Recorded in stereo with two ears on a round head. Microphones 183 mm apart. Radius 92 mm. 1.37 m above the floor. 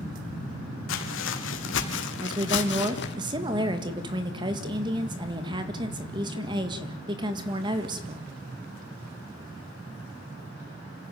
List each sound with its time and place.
0.9 s footsteps: 70° left (ahead or behind), 3.5 m; by 3.2 s 55° left (ahead or behind), 2.5 m
2.2 s a woman speaking: 20° right (ahead or behind), 1.7 m